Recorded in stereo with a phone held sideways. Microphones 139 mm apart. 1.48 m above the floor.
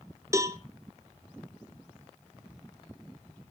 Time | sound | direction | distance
0.3 | a cowbell | 20° right (ahead or behind) | 0.9 m